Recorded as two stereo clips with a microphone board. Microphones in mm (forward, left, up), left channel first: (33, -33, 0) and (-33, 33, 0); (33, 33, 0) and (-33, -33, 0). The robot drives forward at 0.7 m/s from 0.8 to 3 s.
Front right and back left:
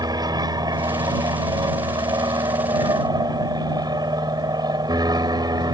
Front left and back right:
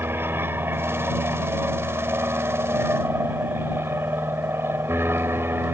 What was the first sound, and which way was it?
An aircraft, 165° left.